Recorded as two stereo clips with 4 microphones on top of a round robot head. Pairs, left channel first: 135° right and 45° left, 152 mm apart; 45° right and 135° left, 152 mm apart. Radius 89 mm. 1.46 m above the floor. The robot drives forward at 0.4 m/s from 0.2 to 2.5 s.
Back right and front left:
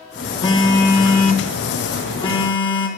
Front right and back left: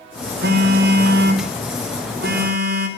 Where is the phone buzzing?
160° left, 3 m; by 2.9 s 165° left, 3.5 m.